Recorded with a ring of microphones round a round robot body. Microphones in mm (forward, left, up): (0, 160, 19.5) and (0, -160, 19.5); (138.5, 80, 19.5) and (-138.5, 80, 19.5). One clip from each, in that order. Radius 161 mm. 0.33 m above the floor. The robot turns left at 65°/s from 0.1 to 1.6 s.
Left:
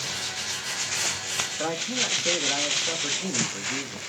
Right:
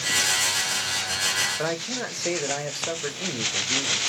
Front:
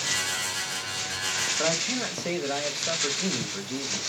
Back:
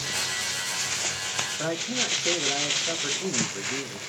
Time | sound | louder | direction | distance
1.6 | a man speaking | left 1 dB, front 1 dB | 70° right | 1.3 m